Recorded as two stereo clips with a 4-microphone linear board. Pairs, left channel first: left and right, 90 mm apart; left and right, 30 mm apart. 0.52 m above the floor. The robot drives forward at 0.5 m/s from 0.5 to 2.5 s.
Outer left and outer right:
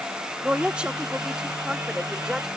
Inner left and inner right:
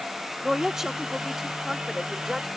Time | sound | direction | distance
0.4 | a woman speaking | 10° right (ahead or behind) | ?